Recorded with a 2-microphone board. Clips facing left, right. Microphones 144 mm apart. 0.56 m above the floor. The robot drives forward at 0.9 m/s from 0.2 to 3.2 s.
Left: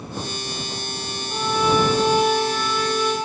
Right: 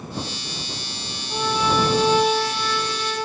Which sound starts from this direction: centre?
A violin, at 1.3 s.